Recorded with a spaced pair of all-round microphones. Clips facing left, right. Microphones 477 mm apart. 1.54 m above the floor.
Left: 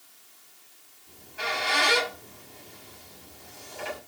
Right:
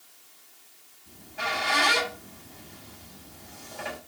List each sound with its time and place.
1.1 s a squeak: 75° right (ahead or behind), 6.5 m